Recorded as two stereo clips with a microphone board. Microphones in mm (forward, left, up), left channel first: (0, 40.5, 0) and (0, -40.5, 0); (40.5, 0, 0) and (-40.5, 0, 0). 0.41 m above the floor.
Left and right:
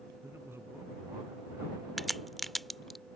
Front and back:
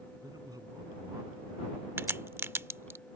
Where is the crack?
175° left.